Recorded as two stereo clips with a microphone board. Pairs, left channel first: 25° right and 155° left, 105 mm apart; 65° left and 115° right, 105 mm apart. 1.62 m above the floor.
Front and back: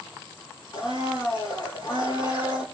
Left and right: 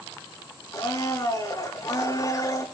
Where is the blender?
15° left, 4 m.